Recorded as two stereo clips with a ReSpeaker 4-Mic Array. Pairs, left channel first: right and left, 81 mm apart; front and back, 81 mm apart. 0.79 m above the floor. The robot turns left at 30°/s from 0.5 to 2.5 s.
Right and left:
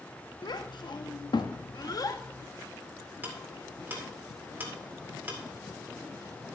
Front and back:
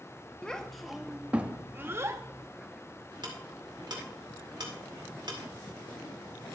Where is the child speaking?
80° right, 0.8 m; by 2.2 s 130° right, 0.8 m.